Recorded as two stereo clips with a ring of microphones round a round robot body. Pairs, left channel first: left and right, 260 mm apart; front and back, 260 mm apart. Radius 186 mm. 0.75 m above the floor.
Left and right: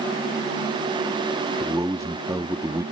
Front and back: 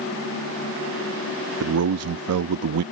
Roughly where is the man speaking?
Behind.